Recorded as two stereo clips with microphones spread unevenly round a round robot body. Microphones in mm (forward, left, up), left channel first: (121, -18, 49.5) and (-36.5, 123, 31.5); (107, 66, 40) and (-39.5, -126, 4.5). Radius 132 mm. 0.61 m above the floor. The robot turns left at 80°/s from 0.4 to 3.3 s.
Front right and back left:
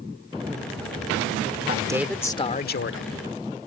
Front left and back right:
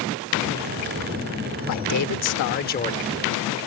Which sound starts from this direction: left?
A man speaking, at 1.7 s.